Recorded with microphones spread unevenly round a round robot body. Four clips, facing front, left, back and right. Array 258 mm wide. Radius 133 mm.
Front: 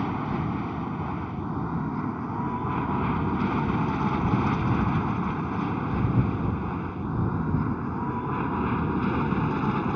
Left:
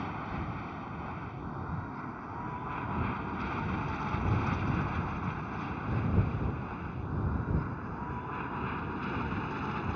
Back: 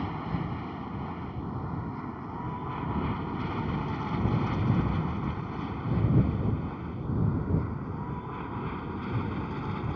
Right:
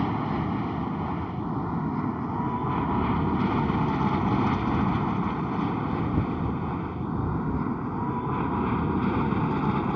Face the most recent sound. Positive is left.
turn(degrees=-45)